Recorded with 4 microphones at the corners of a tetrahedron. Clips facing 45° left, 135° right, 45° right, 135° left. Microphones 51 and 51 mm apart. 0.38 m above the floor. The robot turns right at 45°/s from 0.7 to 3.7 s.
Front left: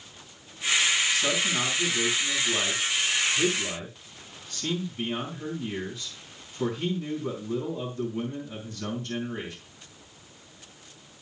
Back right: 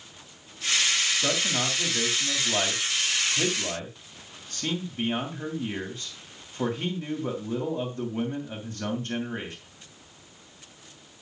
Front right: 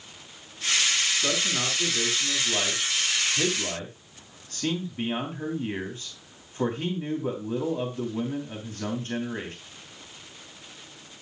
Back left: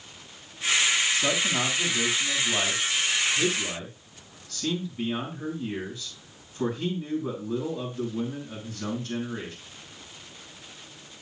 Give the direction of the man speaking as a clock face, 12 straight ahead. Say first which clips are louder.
Front left 1 dB, back left 2 dB; 7 o'clock.